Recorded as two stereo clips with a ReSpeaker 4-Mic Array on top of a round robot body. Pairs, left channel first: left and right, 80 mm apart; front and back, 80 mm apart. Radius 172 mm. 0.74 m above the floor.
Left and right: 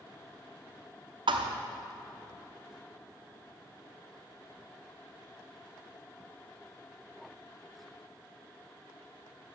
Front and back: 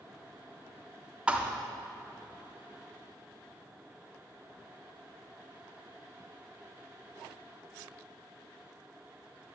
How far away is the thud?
About 0.6 m.